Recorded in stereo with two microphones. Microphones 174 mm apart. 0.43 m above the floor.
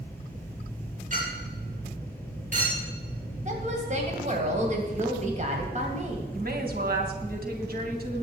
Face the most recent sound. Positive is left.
turn(degrees=-60)  # may be behind; listen again after turning